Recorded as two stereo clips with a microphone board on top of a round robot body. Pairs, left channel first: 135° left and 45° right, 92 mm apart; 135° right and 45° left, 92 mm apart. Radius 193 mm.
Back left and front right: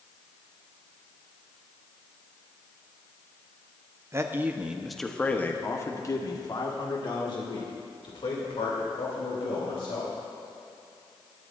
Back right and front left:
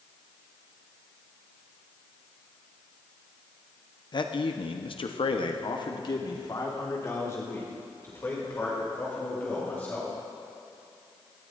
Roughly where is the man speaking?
Right.